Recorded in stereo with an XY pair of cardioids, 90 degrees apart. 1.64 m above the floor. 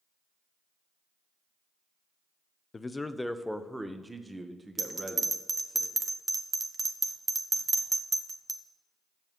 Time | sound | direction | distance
2.7 | a man speaking | 35° left | 0.6 m
4.8 | a bell | 30° right | 0.9 m